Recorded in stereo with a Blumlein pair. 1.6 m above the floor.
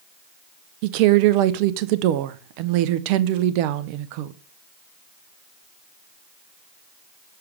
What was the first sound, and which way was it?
A woman speaking, 45° right.